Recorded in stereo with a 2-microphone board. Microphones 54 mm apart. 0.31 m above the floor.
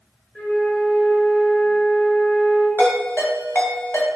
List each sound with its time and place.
0.3 s a flute: 5° left (ahead or behind), 1.4 m
2.8 s a ringtone: 45° left (ahead or behind), 1.0 m